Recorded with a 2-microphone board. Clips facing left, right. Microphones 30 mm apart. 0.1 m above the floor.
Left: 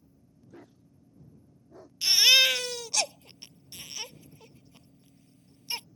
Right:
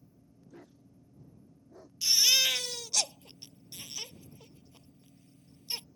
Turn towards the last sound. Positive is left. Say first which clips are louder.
# left 5 dB
turn(degrees=35)  # may be behind; listen again after turning